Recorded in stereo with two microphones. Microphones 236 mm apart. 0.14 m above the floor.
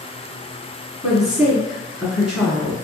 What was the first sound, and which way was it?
A woman speaking, centre (ahead or behind).